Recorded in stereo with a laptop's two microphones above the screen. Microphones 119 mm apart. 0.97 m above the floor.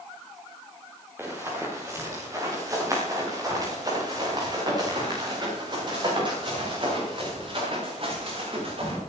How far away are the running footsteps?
About 8 m.